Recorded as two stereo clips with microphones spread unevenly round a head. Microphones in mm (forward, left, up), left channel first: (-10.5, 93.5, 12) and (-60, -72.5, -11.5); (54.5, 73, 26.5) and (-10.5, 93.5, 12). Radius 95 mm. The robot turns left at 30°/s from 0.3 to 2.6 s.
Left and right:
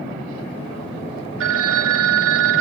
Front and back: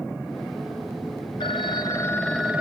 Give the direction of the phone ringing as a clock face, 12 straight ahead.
3 o'clock.